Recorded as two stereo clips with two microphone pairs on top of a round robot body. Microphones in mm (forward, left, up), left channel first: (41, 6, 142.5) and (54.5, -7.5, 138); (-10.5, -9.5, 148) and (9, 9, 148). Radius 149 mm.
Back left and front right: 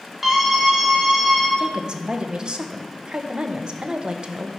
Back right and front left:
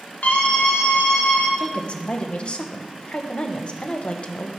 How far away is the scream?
About 1.8 m.